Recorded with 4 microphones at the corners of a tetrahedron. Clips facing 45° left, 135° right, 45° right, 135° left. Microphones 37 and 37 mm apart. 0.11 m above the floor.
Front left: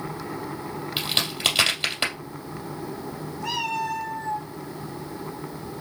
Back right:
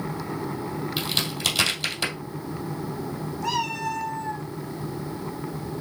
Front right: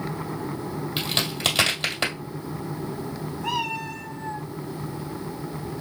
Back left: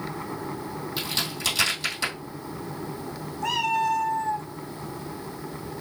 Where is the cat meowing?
130° left, 1.9 m.